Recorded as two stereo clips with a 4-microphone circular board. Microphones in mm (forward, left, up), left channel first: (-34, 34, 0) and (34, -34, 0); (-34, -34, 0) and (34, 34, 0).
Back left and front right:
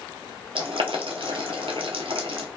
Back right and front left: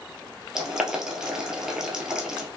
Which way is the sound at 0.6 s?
40° right.